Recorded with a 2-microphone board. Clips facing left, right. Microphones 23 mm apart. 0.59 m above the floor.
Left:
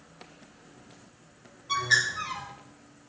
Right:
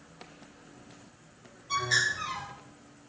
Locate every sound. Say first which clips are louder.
1.7 s a bird: left 2 dB; 40° left (ahead or behind), 3.5 m